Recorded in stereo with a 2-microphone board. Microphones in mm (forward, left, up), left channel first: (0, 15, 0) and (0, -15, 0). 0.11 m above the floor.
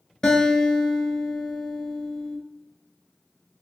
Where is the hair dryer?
No hair dryer in this recording.